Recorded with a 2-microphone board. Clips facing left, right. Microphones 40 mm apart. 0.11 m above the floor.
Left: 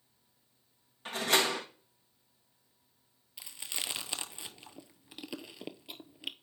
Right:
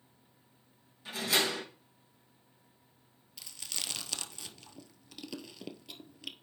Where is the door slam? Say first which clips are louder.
Left 2 dB; 50° left (ahead or behind), 3.5 m.